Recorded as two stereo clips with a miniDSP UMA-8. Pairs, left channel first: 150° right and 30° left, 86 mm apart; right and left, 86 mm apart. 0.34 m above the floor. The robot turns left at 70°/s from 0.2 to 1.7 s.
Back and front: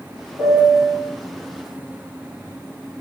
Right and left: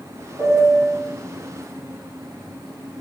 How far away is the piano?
About 1.7 m.